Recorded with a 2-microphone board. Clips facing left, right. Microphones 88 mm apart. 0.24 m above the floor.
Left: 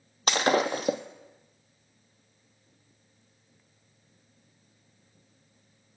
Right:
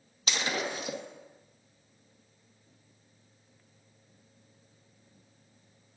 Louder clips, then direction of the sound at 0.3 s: Left 9 dB; 55° left (ahead or behind).